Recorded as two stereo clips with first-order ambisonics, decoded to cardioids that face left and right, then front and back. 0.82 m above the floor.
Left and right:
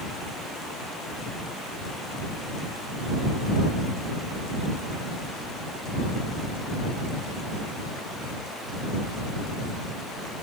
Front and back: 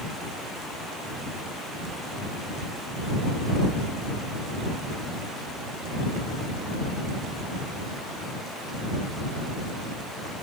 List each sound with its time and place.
Only background noise.